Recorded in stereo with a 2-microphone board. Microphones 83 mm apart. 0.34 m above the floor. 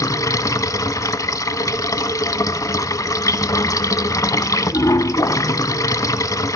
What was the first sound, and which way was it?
Running water, 40° left (ahead or behind).